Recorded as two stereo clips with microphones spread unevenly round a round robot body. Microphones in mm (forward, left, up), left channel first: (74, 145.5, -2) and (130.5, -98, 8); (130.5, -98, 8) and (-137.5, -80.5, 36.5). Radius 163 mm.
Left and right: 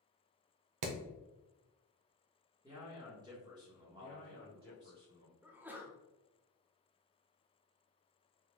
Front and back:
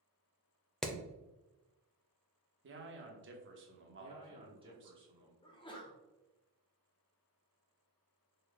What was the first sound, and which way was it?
Hammering, 90° right.